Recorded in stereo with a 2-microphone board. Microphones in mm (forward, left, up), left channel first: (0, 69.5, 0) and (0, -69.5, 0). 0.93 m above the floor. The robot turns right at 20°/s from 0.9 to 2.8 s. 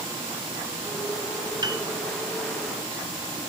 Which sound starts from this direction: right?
A piano, at 1.6 s.